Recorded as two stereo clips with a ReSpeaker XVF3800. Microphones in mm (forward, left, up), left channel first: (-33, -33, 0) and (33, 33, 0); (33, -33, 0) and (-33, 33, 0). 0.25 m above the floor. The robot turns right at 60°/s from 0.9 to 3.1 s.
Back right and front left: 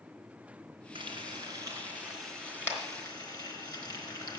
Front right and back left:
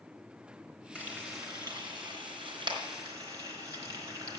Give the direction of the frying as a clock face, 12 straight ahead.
10 o'clock.